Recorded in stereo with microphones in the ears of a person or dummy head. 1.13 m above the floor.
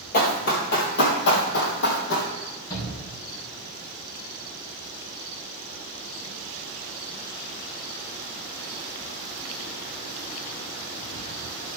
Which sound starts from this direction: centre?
A shout, at 2.7 s.